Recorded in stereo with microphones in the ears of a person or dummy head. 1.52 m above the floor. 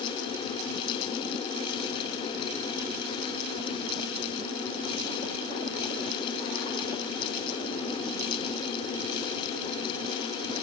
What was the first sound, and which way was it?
Only background noise.